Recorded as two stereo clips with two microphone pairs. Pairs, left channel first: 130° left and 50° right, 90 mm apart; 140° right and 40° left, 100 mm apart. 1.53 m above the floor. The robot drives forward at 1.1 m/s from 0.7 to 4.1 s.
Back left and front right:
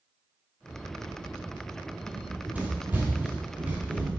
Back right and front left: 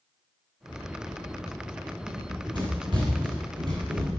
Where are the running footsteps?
15° left, 3 m; by 4.2 s 20° left, 3 m.